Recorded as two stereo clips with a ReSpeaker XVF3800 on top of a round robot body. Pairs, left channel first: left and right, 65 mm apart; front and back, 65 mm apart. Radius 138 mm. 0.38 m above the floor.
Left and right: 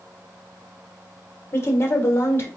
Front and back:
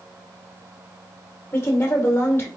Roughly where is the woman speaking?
Ahead left.